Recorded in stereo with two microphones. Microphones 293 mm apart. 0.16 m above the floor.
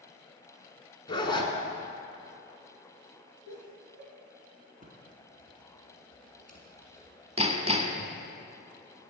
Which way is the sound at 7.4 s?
20° right (ahead or behind).